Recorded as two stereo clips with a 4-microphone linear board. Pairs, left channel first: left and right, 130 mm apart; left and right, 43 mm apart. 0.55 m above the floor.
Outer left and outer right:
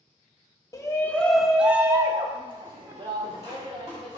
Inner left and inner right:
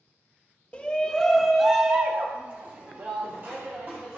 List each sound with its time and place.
0.7 s a shout: 25° left (ahead or behind), 1.1 m; by 4.2 s 55° right (ahead or behind), 2.5 m